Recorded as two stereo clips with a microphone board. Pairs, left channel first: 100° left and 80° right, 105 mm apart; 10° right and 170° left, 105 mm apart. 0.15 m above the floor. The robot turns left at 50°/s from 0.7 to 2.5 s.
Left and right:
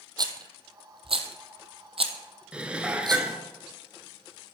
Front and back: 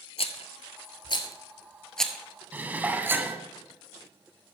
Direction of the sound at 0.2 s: 30° right.